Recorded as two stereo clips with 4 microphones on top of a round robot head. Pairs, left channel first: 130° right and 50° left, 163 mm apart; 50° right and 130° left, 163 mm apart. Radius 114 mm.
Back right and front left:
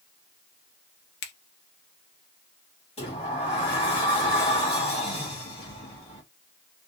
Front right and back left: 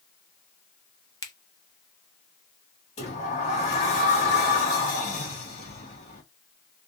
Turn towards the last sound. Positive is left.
turn(degrees=-85)